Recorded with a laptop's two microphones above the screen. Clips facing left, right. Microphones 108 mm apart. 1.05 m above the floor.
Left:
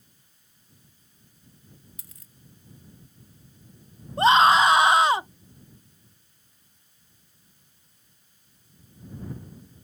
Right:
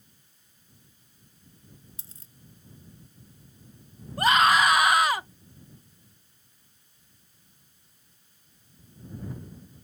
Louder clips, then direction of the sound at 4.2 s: Left 4 dB; 25° left (ahead or behind).